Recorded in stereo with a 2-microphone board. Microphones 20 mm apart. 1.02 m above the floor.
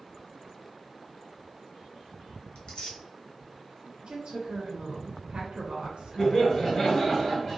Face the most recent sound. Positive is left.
turn(degrees=30)  # may be behind; listen again after turning